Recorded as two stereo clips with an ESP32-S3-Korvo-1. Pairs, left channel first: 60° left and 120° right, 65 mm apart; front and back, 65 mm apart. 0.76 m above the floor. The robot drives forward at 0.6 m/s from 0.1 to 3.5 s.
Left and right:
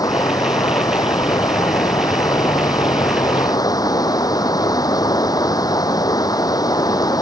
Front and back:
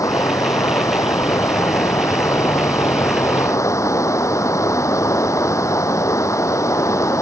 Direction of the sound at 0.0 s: 35° left.